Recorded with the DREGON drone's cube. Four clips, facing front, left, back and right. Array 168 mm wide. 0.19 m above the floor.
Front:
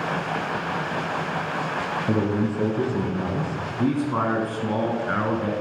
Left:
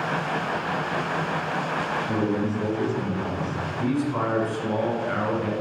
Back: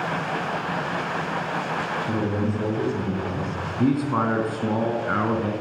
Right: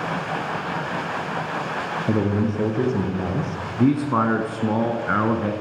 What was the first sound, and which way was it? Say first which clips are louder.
A man speaking: right 5 dB, front 4 dB; 70° right.